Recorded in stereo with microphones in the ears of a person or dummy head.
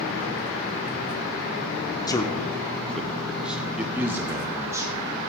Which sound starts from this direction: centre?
A man speaking, at 2.1 s.